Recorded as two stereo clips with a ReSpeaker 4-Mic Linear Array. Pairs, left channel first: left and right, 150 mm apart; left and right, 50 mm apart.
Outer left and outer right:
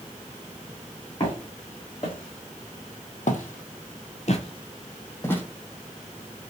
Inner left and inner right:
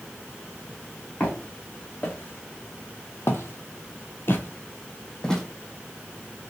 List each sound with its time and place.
1.2 s footsteps: 35° left (ahead or behind), 1.8 m; by 5.4 s 15° left (ahead or behind), 0.9 m